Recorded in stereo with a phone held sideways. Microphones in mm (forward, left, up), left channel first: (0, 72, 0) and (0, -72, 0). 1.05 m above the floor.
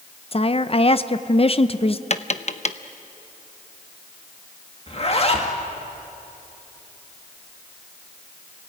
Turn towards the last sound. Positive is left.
turn(degrees=45)  # may be behind; listen again after turning